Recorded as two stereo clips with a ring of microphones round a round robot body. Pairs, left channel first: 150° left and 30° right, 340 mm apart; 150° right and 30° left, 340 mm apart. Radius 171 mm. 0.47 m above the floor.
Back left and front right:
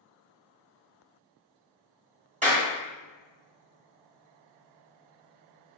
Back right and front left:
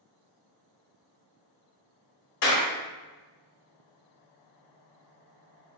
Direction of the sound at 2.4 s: 100° right.